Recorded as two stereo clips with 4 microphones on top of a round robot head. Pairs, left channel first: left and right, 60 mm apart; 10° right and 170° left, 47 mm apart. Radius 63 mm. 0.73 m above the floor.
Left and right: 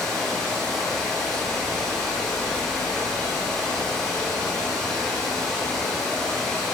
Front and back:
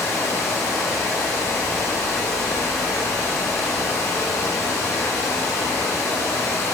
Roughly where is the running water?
Ahead.